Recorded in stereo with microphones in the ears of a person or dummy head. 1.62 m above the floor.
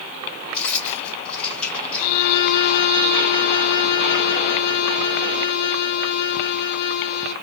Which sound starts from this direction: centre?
Keys jangling, at 0.5 s.